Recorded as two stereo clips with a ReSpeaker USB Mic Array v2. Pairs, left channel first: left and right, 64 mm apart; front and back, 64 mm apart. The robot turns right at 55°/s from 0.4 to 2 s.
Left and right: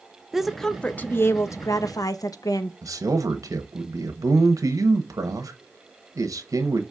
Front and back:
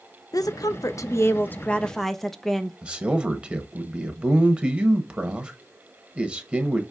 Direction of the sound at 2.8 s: 110° right.